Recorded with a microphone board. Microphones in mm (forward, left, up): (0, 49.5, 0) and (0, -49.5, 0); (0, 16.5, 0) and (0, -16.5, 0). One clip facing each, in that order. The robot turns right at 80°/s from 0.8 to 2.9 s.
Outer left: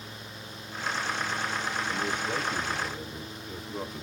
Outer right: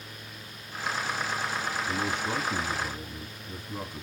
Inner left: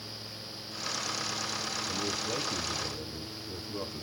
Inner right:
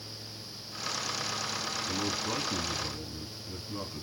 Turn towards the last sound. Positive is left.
turn(degrees=-5)